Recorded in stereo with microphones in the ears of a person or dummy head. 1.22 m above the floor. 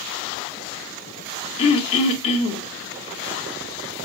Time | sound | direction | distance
1.6 | throat clearing | 35° left (ahead or behind) | 1.8 m